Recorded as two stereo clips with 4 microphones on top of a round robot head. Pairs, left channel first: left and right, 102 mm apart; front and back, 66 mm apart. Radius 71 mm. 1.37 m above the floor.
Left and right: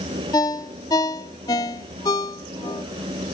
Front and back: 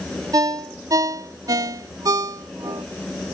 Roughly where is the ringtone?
Behind left.